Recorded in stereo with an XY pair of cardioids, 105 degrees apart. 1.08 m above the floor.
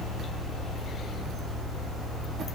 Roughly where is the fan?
Ahead left.